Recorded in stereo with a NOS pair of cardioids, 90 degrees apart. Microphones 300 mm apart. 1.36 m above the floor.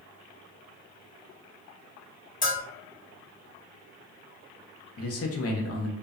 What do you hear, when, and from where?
2.4 s a bell: 25° left, 1.1 m
5.0 s a man speaking: 50° left, 0.7 m